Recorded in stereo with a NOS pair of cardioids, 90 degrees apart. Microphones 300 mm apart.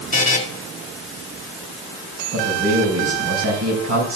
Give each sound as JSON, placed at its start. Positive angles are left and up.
{"t": 0.1, "sound": "a buzzer", "azimuth_deg": 25, "distance_m": 2.0}
{"t": 2.3, "sound": "a man speaking", "azimuth_deg": -60, "distance_m": 5.0}